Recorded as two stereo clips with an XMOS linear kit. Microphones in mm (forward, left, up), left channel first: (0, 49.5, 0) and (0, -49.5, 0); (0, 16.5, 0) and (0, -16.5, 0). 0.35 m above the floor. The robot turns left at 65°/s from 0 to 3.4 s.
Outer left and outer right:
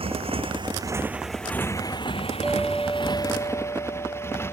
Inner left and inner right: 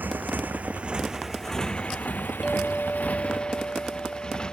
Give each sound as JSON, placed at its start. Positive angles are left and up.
{"t": 0.0, "sound": "a motorcycle", "side_deg": -75}
{"t": 2.4, "sound": "a clink", "azimuth_deg": -170}